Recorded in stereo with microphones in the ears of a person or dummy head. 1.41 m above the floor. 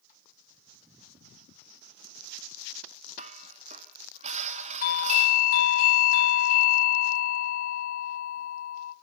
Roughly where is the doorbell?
Left.